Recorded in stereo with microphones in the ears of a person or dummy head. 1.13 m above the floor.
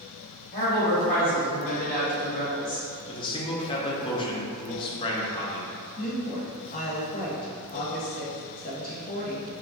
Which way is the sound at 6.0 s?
40° left (ahead or behind).